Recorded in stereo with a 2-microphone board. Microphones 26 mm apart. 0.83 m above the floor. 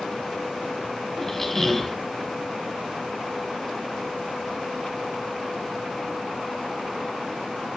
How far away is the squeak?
About 1.1 m.